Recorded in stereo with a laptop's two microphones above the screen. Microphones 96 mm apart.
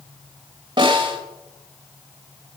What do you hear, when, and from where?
0.8 s a snare drum: 50° right (ahead or behind), 3 m